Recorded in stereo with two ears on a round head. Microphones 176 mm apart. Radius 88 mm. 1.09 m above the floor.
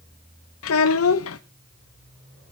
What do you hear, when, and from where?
0.6 s a child speaking: 80° left, 0.7 m